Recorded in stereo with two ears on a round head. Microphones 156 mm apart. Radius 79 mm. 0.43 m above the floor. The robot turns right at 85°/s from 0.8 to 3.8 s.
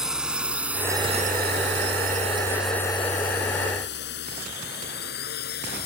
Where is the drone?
5° right (ahead or behind); by 5.9 s 65° left (ahead or behind).